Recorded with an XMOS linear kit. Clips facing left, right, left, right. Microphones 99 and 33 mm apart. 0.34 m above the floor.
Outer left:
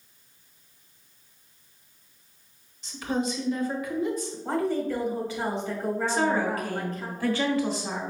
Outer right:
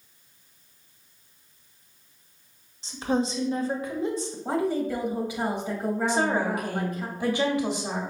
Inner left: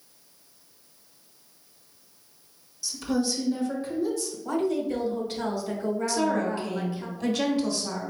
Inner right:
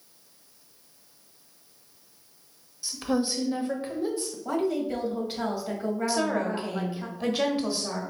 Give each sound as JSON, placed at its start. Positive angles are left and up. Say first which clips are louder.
{"t": 2.8, "sound": "a woman speaking", "louder": "outer right 2 dB, even", "side_deg": -30, "distance_m": 1.0}
{"t": 4.5, "sound": "a woman speaking", "louder": "outer right 1 dB, inner left 1 dB", "side_deg": -15, "distance_m": 1.4}
{"t": 6.1, "sound": "a woman speaking", "louder": "even, inner left 1 dB", "side_deg": -20, "distance_m": 1.1}